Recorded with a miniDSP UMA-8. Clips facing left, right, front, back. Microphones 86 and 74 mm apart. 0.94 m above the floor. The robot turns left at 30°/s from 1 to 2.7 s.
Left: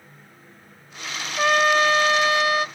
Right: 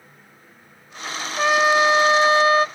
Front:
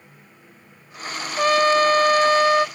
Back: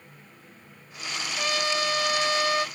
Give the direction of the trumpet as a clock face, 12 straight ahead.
12 o'clock.